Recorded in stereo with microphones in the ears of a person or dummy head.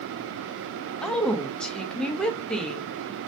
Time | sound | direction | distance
1.0 | a woman speaking | 5° left (ahead or behind) | 0.5 m